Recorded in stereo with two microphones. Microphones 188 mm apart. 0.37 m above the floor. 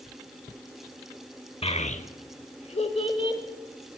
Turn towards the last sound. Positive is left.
turn(degrees=25)  # may be behind; listen again after turning